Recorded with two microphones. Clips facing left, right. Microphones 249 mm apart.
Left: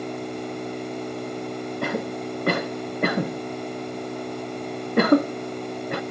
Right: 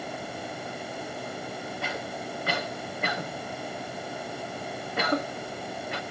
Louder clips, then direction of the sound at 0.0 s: Left 7 dB; 65° left (ahead or behind).